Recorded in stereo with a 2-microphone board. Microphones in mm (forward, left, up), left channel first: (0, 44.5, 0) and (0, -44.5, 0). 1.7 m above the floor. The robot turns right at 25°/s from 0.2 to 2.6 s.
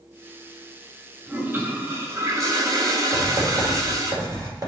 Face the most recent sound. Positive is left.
turn(degrees=-35)  # may be behind; listen again after turning